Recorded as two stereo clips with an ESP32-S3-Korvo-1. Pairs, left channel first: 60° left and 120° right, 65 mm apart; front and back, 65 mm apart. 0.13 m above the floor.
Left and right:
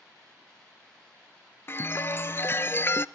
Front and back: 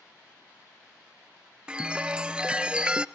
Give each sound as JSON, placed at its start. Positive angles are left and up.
{"t": 1.7, "sound": "a chime", "azimuth_deg": 110, "distance_m": 0.5}